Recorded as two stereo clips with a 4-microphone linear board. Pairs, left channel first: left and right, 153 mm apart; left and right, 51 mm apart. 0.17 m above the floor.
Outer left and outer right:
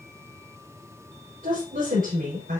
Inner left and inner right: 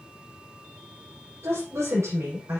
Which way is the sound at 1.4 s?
70° right (ahead or behind).